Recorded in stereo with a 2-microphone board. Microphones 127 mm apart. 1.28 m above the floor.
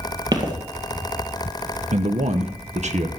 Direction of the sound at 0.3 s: 35° right (ahead or behind).